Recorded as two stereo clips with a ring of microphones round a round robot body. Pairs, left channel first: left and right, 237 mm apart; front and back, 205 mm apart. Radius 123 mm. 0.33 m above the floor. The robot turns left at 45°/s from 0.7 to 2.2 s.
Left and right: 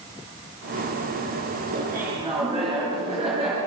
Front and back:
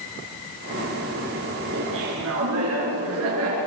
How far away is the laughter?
About 6.5 m.